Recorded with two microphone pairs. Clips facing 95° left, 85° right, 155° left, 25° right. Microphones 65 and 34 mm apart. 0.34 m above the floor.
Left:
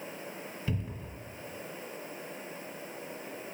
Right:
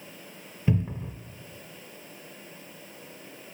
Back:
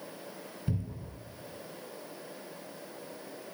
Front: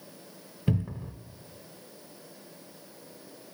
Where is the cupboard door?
30° right, 0.6 m.